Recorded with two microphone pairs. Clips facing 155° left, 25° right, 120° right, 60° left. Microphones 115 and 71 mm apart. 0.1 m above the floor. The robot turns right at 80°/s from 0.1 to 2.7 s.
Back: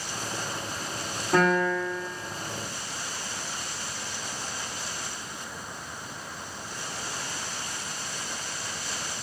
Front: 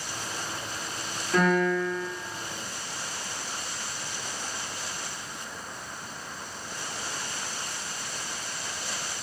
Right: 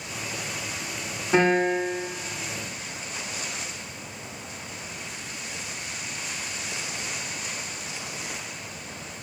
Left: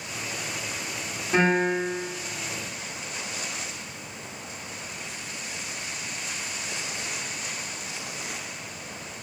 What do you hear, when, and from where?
1.3 s a piano: 175° right, 1.4 m; by 2.1 s 115° right, 1.4 m